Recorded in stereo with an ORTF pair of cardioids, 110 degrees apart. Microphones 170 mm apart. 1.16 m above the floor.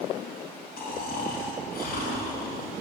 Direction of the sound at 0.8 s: 65° left.